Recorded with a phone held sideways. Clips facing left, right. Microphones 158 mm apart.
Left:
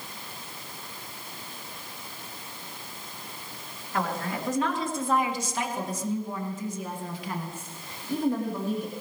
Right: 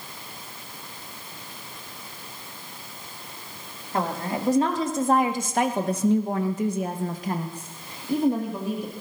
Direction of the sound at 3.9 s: 30° right (ahead or behind).